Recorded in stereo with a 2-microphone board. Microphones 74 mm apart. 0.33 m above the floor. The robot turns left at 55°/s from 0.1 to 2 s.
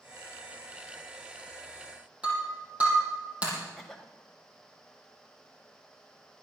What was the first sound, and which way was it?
Breaking glass, 20° right (ahead or behind).